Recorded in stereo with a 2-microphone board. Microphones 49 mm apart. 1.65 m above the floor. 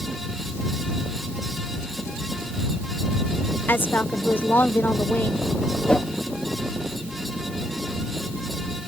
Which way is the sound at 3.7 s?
45° left (ahead or behind).